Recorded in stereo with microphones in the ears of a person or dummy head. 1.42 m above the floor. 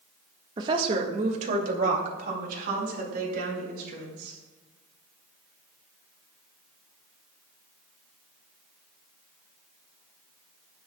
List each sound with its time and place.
0.6 s a woman speaking: 25° right (ahead or behind), 1.4 m; by 4.4 s 60° right (ahead or behind), 7 m